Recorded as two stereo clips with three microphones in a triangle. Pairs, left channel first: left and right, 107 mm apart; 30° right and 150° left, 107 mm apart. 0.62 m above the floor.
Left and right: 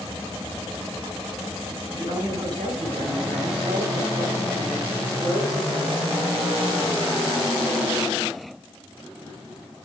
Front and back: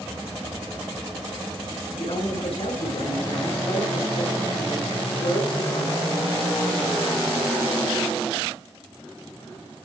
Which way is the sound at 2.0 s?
45° right.